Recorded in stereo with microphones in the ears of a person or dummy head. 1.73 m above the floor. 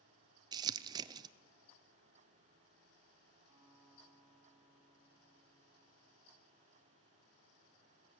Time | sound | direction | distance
0.5 | crumpling | 25° right (ahead or behind) | 0.7 m
3.5 | a guitar | 10° right (ahead or behind) | 5.5 m